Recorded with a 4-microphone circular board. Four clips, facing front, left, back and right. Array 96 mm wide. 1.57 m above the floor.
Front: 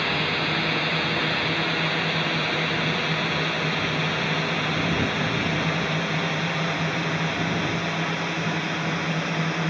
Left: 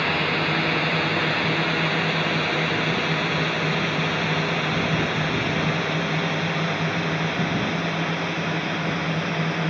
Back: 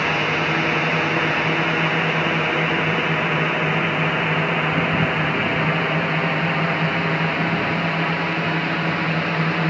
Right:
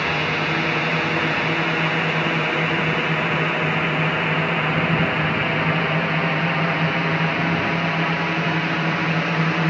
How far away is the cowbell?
I don't hear a cowbell.